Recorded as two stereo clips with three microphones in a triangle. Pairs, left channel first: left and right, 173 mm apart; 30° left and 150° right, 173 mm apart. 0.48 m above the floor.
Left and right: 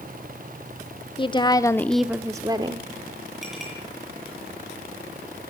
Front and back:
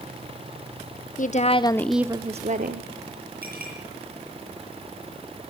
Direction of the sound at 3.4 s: Straight behind.